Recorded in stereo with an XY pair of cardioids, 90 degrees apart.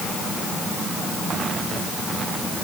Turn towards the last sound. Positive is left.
No sound to turn to.